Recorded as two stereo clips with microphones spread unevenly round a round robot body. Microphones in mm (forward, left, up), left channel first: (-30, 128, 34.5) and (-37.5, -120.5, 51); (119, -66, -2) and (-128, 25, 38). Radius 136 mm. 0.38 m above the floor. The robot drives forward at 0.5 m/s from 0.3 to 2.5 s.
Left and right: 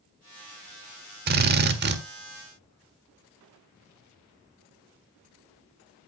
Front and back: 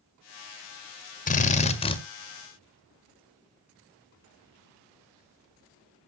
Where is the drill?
55° right, 1.7 m; by 2.0 s 70° right, 1.6 m.